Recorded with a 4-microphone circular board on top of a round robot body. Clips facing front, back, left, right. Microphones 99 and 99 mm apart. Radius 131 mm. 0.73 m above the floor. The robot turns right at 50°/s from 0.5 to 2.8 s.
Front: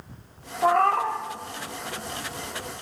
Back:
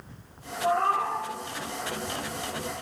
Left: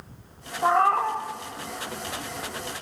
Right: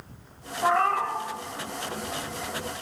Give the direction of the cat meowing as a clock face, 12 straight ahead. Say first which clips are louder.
Front 4 dB, left 3 dB; 12 o'clock.